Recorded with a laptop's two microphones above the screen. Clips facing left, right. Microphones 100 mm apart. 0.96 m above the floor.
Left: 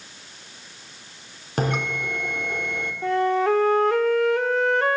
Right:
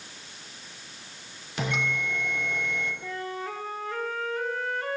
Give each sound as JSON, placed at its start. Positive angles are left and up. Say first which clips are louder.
{"t": 1.6, "sound": "a bell", "louder": "left 5 dB", "side_deg": 45, "distance_m": 3.0}
{"t": 3.0, "sound": "a flute", "louder": "left 14 dB", "side_deg": 75, "distance_m": 1.1}